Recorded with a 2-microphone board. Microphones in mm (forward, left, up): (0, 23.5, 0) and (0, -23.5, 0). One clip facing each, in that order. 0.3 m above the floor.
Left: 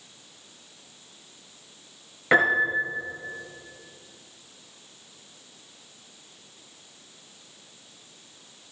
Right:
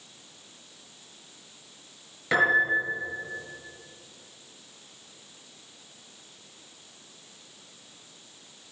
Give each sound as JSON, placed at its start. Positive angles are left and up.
{"t": 2.3, "sound": "a piano", "side_deg": 30, "distance_m": 4.5}